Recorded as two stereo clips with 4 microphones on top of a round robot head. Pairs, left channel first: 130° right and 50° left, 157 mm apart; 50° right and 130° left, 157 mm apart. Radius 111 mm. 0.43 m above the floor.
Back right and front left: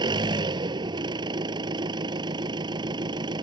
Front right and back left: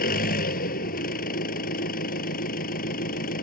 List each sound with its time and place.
0.0 s an engine running: 15° right